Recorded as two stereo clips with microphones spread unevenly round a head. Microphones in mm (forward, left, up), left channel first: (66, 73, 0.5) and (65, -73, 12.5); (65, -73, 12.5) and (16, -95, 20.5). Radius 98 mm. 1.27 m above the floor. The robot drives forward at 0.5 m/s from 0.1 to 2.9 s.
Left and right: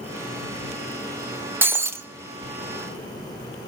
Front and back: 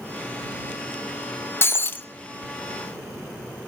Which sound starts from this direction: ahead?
Breaking glass, at 1.6 s.